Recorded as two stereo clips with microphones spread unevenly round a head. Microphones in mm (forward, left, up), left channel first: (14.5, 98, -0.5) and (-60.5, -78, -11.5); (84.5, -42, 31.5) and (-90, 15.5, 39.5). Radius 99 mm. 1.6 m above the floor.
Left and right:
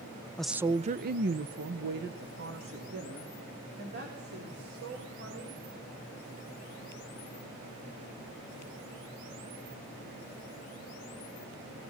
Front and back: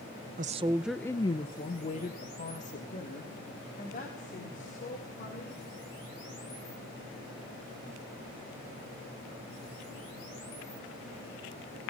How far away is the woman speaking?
About 0.6 m.